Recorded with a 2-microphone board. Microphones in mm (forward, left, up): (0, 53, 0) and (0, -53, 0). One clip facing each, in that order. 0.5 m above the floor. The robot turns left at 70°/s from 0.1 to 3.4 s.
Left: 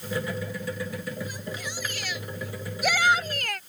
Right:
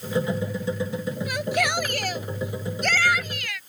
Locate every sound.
1.3 s a shout: 75° right; by 3.6 s 135° left